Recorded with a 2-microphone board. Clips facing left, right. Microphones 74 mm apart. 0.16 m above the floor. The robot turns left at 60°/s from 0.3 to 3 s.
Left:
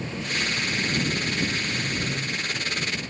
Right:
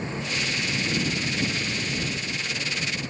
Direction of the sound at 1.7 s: 100° left.